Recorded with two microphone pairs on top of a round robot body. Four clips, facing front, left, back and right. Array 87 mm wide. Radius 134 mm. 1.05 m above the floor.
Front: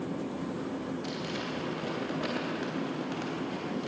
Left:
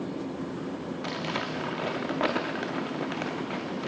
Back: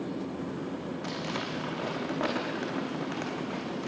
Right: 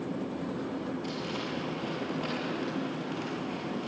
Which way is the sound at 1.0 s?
115° left.